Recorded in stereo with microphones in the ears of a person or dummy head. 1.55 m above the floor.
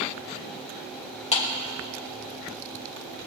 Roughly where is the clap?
Left.